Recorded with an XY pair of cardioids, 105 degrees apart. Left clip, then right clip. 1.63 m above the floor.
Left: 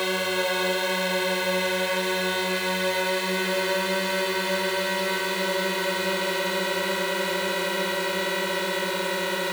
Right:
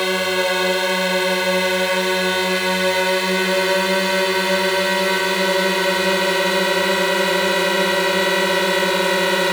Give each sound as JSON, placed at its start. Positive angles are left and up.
{"t": 0.0, "sound": "a drone", "azimuth_deg": -35}